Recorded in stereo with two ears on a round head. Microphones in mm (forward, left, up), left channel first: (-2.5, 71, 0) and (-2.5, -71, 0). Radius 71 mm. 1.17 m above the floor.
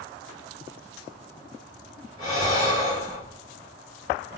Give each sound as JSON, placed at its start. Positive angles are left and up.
{"t": 2.2, "sound": "breathing", "side_deg": 25, "distance_m": 2.5}